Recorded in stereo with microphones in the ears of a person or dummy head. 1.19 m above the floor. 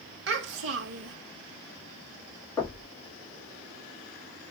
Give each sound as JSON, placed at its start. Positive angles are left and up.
{"t": 0.3, "sound": "a child speaking", "side_deg": -65, "distance_m": 1.0}
{"t": 2.6, "sound": "knocking", "side_deg": 15, "distance_m": 1.9}